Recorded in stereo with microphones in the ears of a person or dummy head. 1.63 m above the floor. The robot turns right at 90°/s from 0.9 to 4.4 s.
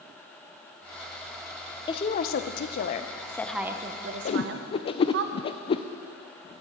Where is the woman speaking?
30° left, 0.9 m; by 5.2 s 100° right, 0.9 m.